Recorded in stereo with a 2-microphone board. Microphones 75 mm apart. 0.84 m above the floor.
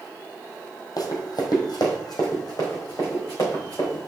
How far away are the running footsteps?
About 1.5 m.